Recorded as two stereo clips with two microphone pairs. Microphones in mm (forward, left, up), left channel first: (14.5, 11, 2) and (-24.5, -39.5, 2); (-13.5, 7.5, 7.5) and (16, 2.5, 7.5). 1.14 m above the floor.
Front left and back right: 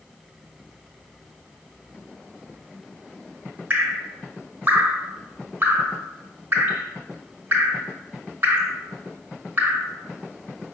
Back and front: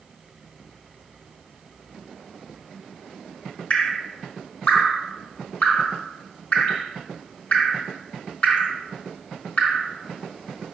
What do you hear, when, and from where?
3.7 s dripping: straight behind, 1.3 m